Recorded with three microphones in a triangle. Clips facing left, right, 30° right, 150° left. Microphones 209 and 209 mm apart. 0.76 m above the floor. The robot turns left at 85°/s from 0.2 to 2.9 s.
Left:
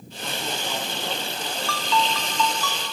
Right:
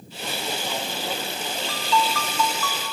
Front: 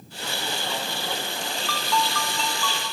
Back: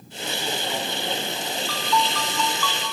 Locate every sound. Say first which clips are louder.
1.7 s a ringtone: right 1 dB, back 2 dB; 20° right, 2.5 m; by 2.8 s 120° right, 2.5 m